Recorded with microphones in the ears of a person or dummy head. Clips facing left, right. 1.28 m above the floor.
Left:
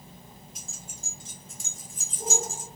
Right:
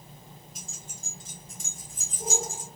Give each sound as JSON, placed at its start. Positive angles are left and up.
{"t": 0.6, "sound": "keys jangling", "side_deg": 0, "distance_m": 1.2}